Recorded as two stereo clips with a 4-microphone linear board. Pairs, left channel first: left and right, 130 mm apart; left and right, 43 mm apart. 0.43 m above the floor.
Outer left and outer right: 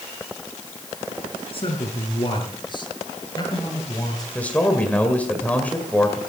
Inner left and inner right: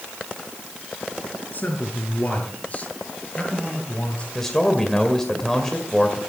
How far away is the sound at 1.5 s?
About 5 m.